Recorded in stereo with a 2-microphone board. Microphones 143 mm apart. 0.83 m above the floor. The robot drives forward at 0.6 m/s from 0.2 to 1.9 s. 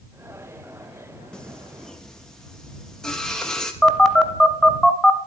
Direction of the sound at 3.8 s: Centre (ahead or behind).